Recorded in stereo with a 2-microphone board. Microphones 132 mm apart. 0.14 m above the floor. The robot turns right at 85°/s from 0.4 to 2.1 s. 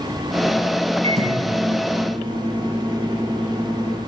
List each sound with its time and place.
1.0 s a microwave: 130° right, 2 m; by 4.0 s 40° right, 2 m